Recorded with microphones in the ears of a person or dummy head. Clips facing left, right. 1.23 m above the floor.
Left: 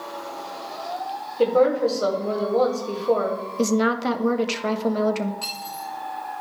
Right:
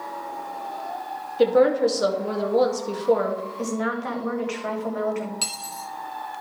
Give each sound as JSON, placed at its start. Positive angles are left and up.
{"t": 1.4, "sound": "a woman speaking", "side_deg": -20, "distance_m": 2.0}
{"t": 3.6, "sound": "a woman speaking", "side_deg": 55, "distance_m": 1.3}
{"t": 5.4, "sound": "cutlery clinking", "side_deg": -70, "distance_m": 1.7}